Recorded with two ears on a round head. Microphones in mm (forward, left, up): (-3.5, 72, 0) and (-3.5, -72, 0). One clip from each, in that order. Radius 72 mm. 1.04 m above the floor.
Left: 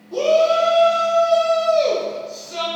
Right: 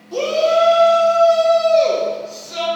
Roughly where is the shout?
Right.